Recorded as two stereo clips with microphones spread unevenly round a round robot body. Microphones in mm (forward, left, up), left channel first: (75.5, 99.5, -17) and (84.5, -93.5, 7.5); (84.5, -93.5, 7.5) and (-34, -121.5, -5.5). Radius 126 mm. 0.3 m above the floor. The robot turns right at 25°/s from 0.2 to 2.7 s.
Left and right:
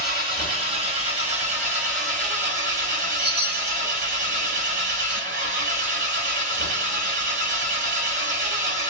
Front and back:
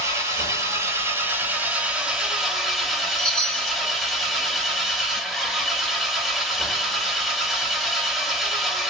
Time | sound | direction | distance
0.0 | an engine running | 150° right | 1.1 m
3.2 | a chime | 75° right | 1.1 m